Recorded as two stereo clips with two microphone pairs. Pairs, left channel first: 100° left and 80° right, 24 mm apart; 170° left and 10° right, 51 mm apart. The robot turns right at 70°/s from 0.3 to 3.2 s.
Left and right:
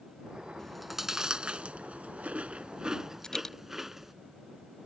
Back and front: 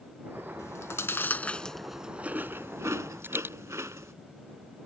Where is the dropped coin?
35° left.